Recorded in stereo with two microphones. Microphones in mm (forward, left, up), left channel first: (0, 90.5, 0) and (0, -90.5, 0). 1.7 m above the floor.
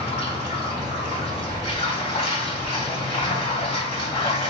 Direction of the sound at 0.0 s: 30° left (ahead or behind).